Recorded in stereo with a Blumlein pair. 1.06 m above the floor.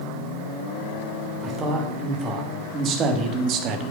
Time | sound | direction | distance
1.4 | a man speaking | 20° right | 3.5 m